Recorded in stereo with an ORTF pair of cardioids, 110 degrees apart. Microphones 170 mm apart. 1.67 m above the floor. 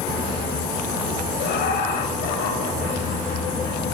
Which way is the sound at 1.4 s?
70° left.